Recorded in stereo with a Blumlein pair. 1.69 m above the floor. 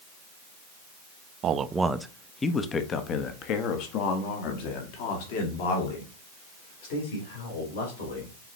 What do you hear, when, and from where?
1.4 s a man speaking: 30° right, 0.6 m; by 8.3 s 55° left, 3.5 m